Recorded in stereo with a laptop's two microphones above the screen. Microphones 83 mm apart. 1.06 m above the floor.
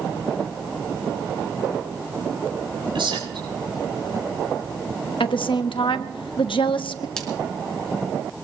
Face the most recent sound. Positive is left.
turn(degrees=10)  # may be behind; listen again after turning